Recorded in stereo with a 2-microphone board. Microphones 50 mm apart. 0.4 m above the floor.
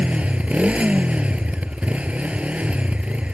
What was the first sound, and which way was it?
A motorcycle, 25° right (ahead or behind).